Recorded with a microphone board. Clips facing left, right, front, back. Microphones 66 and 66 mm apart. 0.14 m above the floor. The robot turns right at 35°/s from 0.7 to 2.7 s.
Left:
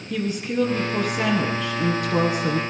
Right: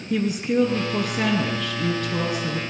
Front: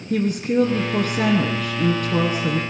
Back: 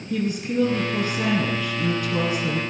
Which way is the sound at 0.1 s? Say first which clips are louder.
Right 3 dB, front 4 dB; 25° right.